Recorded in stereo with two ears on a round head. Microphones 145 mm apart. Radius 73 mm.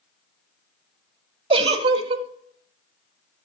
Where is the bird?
No bird in this recording.